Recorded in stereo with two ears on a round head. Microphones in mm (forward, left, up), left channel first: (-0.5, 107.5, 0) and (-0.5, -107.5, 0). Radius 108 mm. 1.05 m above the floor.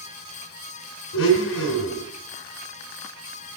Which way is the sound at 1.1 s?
60° left (ahead or behind).